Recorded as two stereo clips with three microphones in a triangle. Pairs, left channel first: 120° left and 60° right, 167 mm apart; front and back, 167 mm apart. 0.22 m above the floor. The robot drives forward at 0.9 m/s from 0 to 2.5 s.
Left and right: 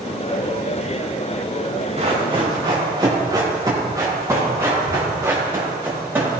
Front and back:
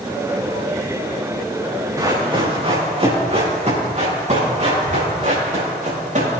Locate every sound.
2.0 s running footsteps: 110° right, 4 m; by 6.3 s 140° right, 7 m